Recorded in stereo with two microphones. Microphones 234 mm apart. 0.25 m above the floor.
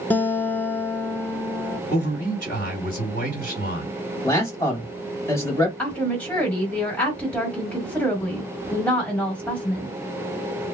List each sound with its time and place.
0.1 s a guitar: 5° left (ahead or behind), 0.6 m
1.9 s a man speaking: 40° left (ahead or behind), 1.6 m
4.2 s a man speaking: 15° left (ahead or behind), 1.4 m
5.8 s a woman speaking: 5° left (ahead or behind), 1.4 m